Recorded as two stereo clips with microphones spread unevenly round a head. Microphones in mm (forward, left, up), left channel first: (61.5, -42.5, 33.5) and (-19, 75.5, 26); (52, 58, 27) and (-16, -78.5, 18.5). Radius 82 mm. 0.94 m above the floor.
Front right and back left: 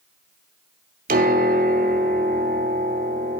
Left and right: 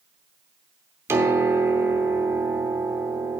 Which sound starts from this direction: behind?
A piano, at 1.1 s.